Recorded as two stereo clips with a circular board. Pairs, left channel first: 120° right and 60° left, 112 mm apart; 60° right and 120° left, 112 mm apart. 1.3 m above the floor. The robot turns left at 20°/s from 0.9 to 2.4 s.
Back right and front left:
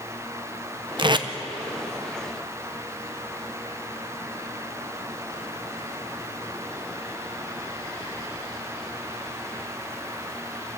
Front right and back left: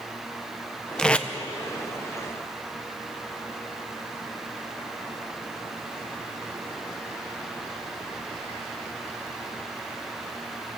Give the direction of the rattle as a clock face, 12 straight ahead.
I don't hear a rattle.